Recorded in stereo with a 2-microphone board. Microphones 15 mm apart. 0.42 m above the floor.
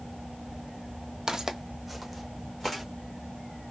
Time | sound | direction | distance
1.3 | footsteps | 50° right (ahead or behind) | 0.7 m